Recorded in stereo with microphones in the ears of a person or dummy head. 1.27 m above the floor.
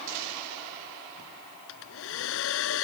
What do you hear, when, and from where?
1.7 s a hair dryer: 75° left (ahead or behind)